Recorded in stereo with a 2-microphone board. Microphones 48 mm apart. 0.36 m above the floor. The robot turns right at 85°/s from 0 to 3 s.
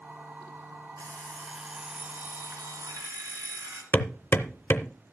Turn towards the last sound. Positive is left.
turn(degrees=50)  # may be behind; listen again after turning